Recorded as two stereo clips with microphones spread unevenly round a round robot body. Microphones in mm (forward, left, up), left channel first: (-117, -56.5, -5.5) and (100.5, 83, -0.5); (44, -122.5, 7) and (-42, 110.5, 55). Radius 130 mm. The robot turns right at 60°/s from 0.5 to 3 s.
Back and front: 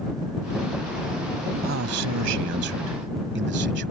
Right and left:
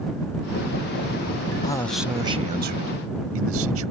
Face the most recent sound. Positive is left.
turn(degrees=75)